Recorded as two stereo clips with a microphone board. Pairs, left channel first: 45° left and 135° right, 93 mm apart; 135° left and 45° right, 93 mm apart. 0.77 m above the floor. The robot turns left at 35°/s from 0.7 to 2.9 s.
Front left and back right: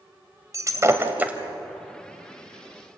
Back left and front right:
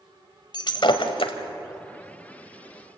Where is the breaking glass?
170° left, 1.8 m; by 1.3 s 150° left, 1.8 m.